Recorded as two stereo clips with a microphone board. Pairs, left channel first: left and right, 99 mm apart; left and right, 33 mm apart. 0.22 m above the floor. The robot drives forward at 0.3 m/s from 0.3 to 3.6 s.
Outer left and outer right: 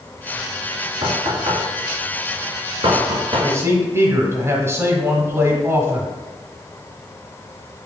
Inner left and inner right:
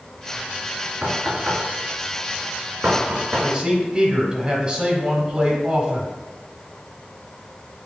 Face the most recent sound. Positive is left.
turn(degrees=-25)  # may be behind; listen again after turning